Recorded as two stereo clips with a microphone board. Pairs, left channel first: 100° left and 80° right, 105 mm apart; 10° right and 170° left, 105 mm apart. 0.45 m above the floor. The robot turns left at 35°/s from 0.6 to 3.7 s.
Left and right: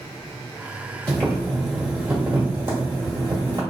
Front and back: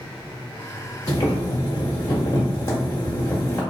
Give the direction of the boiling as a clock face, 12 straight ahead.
11 o'clock.